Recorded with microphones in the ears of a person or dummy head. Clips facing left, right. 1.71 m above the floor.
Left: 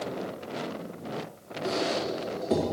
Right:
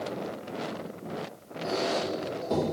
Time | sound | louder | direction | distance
1.6 | a squeak | even | 20° left (ahead or behind) | 1.8 m